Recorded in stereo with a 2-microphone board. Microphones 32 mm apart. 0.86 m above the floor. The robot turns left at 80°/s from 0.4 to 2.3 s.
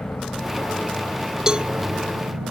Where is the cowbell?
20° right (ahead or behind); by 1.7 s 40° right (ahead or behind).